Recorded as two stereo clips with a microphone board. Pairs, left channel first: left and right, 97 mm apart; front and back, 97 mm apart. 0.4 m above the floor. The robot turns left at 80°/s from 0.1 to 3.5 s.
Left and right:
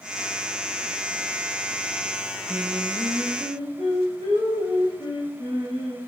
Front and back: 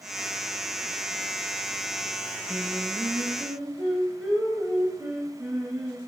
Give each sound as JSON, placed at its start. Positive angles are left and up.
{"t": 2.5, "sound": "singing", "azimuth_deg": 170, "distance_m": 3.0}